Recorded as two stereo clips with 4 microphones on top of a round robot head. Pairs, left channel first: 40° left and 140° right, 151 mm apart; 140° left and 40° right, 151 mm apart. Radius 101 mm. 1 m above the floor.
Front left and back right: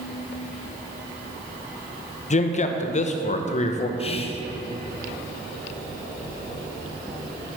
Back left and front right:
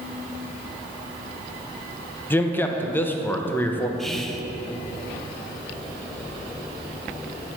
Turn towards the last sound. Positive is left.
turn(degrees=55)